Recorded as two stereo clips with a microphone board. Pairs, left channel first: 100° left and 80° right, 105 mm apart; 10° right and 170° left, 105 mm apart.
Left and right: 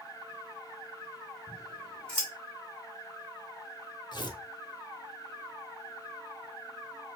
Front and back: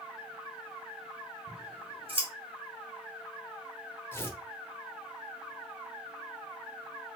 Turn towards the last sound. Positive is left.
turn(degrees=55)